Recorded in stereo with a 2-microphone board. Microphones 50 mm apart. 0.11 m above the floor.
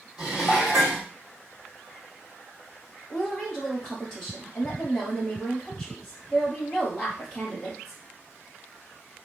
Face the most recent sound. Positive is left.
turn(degrees=10)  # may be behind; listen again after turning